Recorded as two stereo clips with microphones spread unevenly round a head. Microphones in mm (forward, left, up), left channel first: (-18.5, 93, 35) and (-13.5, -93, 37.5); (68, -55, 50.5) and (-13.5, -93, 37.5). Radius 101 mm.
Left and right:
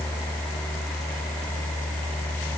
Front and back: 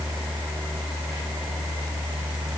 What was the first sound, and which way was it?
Only background noise.